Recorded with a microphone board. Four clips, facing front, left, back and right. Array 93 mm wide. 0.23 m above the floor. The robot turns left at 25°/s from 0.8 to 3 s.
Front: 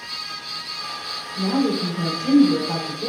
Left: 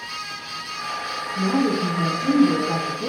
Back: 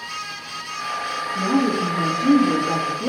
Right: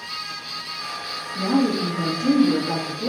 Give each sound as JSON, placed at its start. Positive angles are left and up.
{"t": 1.4, "sound": "a woman speaking", "azimuth_deg": -155, "distance_m": 4.5}